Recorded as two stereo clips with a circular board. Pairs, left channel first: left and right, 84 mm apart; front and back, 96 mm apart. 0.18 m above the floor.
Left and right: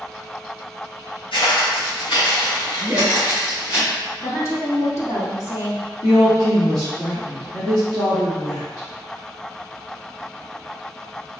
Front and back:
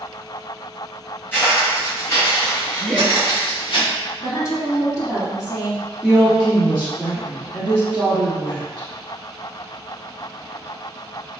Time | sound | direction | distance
1.3 | footsteps | 70° left | 2.0 m
2.8 | laughter | 60° right | 1.0 m
4.2 | a woman speaking | 50° left | 1.6 m
6.0 | a woman speaking | 70° left | 1.8 m